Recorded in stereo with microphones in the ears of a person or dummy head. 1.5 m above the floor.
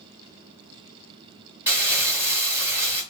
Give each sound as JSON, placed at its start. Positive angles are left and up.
{"t": 1.7, "sound": "crumpling", "side_deg": -10, "distance_m": 1.5}